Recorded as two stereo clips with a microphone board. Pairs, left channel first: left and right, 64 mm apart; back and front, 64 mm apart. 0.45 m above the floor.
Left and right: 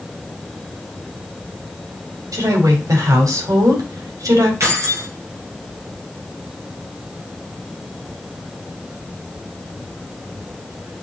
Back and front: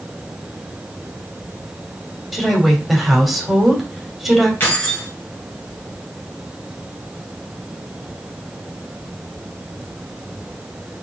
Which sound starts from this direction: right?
A woman speaking, at 2.3 s.